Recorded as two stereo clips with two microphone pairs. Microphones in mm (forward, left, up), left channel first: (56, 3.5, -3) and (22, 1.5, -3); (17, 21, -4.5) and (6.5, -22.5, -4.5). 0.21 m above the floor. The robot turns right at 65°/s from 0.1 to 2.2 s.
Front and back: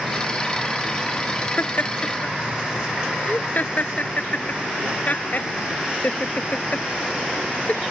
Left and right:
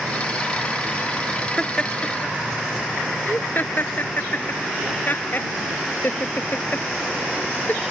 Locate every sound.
1.6 s laughter: 5° right; by 7.8 s 35° left